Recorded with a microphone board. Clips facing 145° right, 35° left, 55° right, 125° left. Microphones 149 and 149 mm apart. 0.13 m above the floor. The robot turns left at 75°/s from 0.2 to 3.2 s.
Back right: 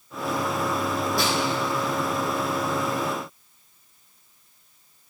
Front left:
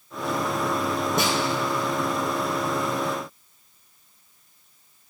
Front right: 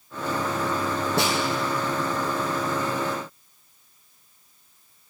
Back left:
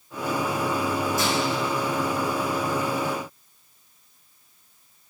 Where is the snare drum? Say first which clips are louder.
Front left 2 dB, front right 1 dB; 35° right, 2.5 m; by 1.4 s 45° right, 2.5 m.